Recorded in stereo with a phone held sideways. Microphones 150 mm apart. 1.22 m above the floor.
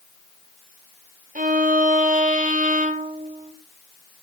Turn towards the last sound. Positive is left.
turn(degrees=-65)  # may be behind; listen again after turning